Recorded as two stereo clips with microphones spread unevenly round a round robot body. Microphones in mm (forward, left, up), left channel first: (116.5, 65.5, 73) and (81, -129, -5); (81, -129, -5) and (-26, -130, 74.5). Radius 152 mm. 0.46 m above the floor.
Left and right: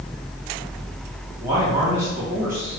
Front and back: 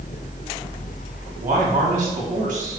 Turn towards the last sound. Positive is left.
turn(degrees=-175)